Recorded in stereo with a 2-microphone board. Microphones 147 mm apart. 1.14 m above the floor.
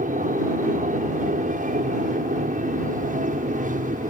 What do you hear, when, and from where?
0.0 s an aircraft: 55° right (ahead or behind)